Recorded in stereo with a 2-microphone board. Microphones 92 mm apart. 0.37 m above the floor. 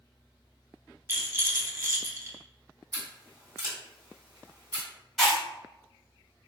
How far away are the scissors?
About 1.8 m.